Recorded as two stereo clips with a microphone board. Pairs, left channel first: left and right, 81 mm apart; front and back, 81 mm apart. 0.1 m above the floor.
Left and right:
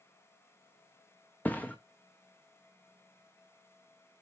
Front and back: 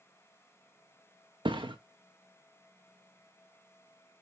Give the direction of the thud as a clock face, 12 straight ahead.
7 o'clock.